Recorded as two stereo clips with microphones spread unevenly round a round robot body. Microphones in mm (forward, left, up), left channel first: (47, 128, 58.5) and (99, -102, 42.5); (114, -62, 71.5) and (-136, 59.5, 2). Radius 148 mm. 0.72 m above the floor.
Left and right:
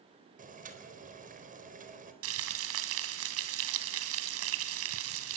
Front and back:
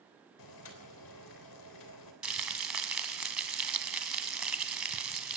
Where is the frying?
115° right, 2.0 m.